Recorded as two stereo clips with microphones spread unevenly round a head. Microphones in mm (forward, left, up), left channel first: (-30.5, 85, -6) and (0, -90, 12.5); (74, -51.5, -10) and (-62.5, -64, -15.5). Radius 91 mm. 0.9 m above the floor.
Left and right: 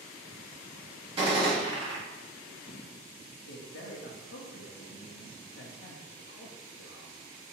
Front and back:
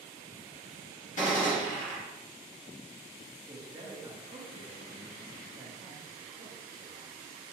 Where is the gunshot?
15° right, 1.7 m.